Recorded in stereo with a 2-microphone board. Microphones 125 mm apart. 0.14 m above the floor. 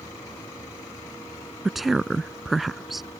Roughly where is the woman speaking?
Centre.